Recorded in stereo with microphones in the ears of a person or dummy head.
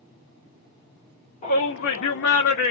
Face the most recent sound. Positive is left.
turn(degrees=65)  # may be behind; listen again after turning